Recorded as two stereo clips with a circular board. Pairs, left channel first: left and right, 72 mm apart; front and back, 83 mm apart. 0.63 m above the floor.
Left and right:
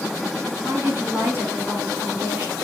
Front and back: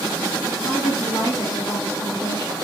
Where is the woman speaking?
35° right, 5.5 m.